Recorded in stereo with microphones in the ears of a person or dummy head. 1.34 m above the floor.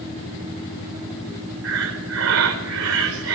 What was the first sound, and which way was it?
Breathing, 80° right.